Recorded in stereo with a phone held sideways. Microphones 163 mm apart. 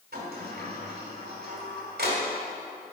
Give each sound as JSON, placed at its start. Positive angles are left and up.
{"t": 0.1, "sound": "a sliding door", "side_deg": -75, "distance_m": 2.5}